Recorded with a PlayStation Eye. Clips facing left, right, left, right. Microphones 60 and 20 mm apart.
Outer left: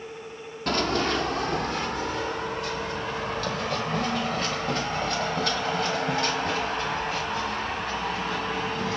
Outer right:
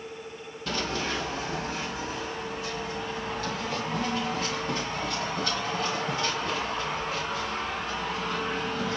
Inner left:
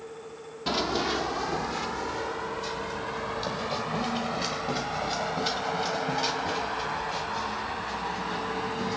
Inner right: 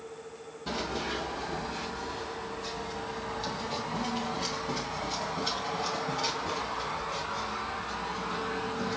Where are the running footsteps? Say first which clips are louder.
Outer left 6 dB, inner left 6 dB; 60° left (ahead or behind), 0.8 m; by 9.0 s 55° left (ahead or behind), 5 m.